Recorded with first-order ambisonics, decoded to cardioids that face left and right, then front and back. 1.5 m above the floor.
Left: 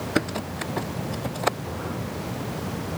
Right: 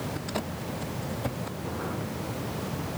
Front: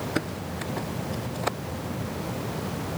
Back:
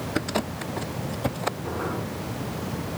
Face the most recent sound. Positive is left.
No sound to turn to.